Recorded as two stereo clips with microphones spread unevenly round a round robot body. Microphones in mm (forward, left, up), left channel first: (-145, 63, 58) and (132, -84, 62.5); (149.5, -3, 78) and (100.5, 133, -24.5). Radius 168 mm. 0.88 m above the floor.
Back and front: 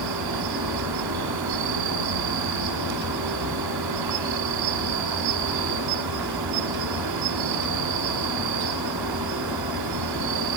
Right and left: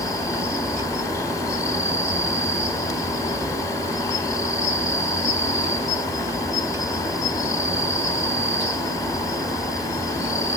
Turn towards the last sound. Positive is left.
turn(degrees=-10)